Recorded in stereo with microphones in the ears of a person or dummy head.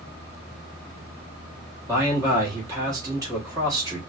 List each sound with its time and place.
1.9 s a man speaking: 20° right (ahead or behind), 1.3 m